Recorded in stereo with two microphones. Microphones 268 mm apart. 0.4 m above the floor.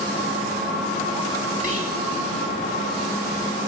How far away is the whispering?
About 1.7 m.